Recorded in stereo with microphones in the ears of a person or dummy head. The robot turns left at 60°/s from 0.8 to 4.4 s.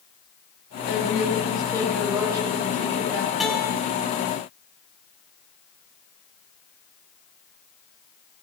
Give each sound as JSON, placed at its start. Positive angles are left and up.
{"t": 0.9, "sound": "a woman speaking", "azimuth_deg": 70, "distance_m": 6.0}
{"t": 3.4, "sound": "a guitar", "side_deg": -5, "distance_m": 1.4}